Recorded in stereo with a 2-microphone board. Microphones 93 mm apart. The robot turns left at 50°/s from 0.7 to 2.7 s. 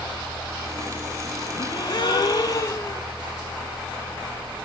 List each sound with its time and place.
1.6 s a gasp: 115° left, 0.9 m; by 3.0 s 55° left, 0.9 m